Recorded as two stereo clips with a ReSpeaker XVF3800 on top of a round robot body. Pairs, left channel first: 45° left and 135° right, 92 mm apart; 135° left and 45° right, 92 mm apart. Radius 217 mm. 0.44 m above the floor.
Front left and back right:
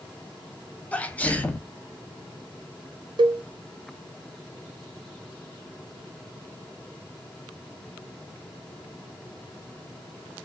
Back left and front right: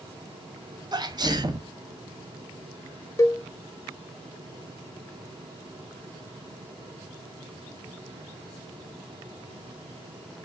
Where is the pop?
No pop in this recording.